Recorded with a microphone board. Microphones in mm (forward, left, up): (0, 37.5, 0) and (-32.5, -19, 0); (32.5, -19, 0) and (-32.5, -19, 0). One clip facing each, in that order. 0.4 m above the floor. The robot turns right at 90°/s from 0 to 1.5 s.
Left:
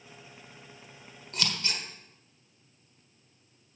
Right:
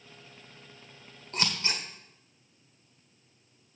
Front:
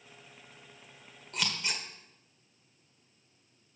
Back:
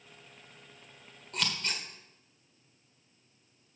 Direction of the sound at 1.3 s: 95° right.